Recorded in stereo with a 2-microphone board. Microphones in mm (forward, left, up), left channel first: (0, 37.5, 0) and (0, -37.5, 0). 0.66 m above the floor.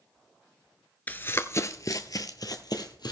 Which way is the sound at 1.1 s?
25° left (ahead or behind).